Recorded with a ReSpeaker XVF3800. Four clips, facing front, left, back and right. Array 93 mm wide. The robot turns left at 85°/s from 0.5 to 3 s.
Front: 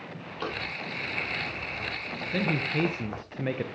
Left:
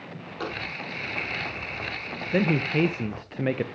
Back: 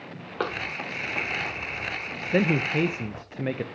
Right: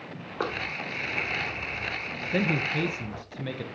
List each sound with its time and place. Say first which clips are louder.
0.4 s running footsteps: right 2 dB, back 4 dB; 150° right, 5.5 m; by 3.2 s 5° left, 3.5 m
2.3 s a man speaking: left 4 dB, back 5 dB; 155° left, 0.6 m; by 3.6 s 100° left, 0.6 m